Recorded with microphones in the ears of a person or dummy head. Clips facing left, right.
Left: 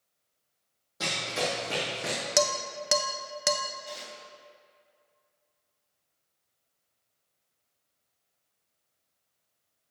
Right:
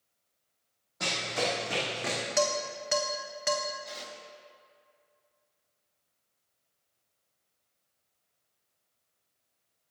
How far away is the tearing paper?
About 1.4 m.